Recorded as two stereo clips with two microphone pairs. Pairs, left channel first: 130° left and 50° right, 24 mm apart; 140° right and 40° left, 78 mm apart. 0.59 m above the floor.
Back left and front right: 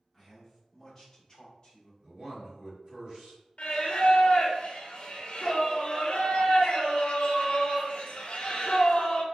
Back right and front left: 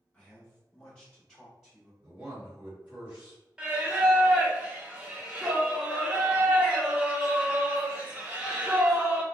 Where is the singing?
115° left, 0.6 m.